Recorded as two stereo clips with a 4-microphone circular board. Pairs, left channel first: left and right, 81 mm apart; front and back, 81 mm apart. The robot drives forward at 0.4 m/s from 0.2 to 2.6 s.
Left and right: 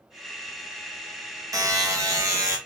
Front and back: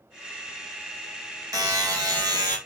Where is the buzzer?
135° right, 1.6 m; by 2.6 s 145° right, 1.9 m.